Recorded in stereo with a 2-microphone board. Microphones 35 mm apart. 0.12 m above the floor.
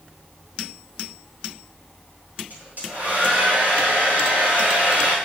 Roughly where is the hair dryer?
Right.